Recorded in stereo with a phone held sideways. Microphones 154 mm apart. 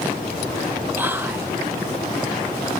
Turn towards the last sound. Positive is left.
turn(degrees=-10)  # may be behind; listen again after turning